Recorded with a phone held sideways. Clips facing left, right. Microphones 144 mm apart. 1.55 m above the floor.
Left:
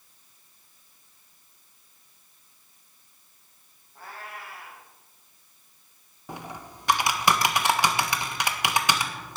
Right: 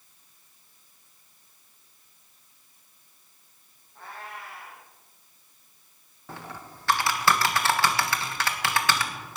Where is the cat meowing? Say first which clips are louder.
Even; 5° left (ahead or behind), 5.5 m.